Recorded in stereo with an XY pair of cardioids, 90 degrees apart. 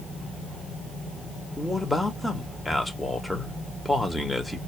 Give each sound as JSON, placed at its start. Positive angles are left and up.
{"t": 1.6, "sound": "a man speaking", "azimuth_deg": 15, "distance_m": 2.0}